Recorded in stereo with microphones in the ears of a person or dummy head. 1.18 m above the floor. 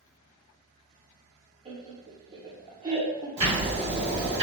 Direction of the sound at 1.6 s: 20° right (ahead or behind).